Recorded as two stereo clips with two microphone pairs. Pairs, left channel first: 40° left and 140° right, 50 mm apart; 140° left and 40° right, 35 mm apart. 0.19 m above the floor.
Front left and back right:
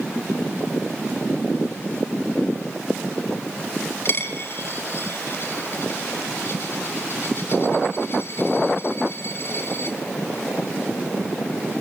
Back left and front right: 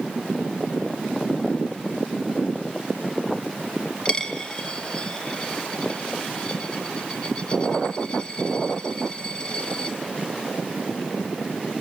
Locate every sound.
4.0 s a dropped coin: 80° left, 1.5 m